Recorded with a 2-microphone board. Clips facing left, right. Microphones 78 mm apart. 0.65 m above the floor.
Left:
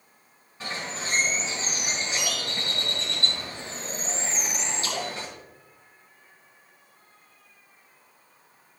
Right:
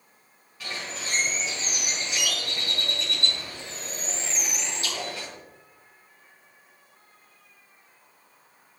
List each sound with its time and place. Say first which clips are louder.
0.6 s a bird: left 2 dB; 30° left (ahead or behind), 4.5 m